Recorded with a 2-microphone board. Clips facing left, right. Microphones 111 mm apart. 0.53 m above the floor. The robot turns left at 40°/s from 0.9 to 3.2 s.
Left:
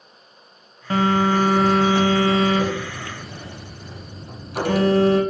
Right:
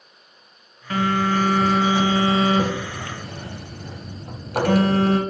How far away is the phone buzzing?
About 1.1 m.